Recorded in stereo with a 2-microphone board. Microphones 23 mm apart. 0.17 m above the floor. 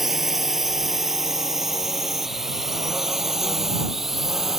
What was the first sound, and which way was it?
A drone, 10° right (ahead or behind).